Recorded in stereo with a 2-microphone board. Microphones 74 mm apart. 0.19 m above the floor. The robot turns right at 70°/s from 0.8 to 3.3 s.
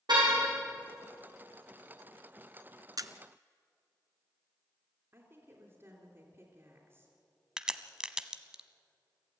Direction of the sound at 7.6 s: 10° right (ahead or behind).